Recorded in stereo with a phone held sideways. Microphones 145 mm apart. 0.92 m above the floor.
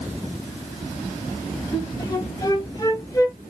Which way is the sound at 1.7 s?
25° left (ahead or behind).